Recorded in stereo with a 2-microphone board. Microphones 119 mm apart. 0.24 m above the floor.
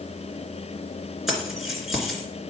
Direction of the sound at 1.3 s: 5° right (ahead or behind).